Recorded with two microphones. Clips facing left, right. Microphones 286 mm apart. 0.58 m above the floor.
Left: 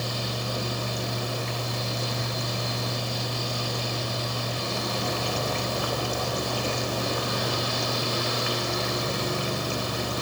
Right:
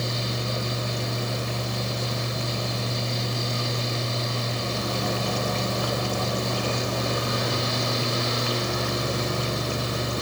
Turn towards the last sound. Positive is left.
No sound to turn to.